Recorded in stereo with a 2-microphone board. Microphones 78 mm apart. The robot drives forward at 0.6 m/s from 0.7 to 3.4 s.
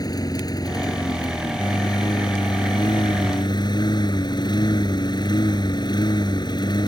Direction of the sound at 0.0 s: 55° left (ahead or behind).